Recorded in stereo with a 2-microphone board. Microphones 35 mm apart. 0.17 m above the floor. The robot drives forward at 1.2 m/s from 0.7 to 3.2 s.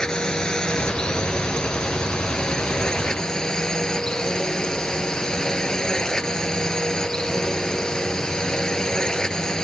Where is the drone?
20° left (ahead or behind).